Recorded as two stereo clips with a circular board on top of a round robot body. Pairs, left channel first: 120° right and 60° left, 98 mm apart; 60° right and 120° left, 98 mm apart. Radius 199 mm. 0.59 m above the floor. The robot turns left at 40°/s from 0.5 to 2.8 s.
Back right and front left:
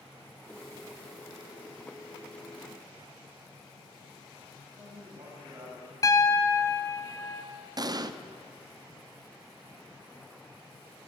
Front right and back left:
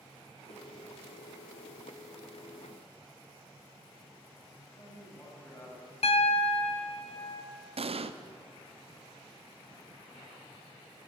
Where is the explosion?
105° left, 0.7 m.